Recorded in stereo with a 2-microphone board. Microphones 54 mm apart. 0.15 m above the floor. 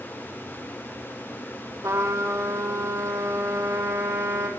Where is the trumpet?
75° right (ahead or behind), 5.5 m.